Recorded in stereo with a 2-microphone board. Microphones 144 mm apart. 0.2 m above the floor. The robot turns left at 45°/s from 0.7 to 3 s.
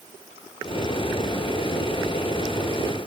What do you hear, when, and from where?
Only background noise.